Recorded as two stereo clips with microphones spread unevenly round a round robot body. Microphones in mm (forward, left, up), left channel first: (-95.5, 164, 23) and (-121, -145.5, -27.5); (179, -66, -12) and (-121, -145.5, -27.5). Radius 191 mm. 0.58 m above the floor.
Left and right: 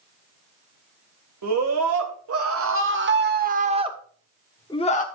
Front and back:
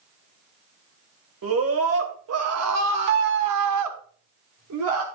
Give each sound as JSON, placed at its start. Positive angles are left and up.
{"t": 1.4, "sound": "a scream", "azimuth_deg": -120, "distance_m": 2.5}